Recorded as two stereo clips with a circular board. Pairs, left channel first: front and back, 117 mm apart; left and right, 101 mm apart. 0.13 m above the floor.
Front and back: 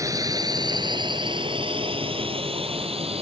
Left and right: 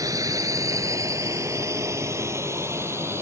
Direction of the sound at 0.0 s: 130° right.